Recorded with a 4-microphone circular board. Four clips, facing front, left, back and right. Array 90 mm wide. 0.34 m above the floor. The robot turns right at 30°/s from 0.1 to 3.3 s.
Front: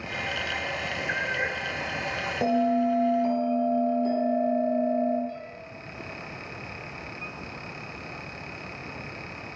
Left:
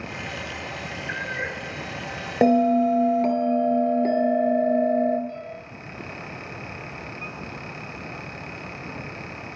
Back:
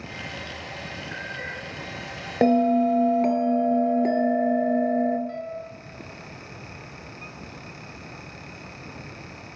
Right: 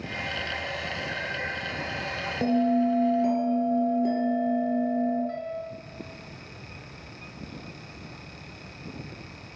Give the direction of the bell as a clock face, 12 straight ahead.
8 o'clock.